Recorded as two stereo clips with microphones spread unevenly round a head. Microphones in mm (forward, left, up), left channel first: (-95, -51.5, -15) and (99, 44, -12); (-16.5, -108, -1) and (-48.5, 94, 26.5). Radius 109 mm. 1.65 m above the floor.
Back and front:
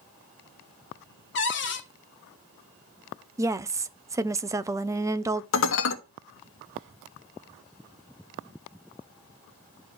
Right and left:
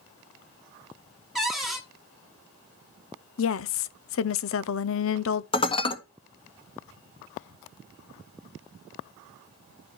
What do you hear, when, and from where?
1.4 s a cupboard door: straight behind, 1.6 m
3.4 s a woman speaking: 50° right, 0.6 m
5.5 s dishes clattering: 150° right, 1.4 m